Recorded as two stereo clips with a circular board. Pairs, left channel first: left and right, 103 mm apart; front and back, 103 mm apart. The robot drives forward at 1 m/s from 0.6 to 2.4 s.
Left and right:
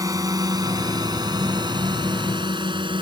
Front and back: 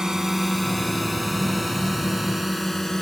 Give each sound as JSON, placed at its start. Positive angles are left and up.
{"t": 0.0, "sound": "a drone", "azimuth_deg": -100}